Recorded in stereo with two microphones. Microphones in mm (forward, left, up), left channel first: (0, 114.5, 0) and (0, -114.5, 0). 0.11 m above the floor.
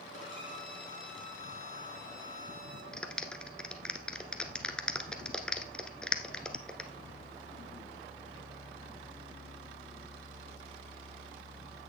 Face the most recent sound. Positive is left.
turn(degrees=5)  # may be behind; listen again after turning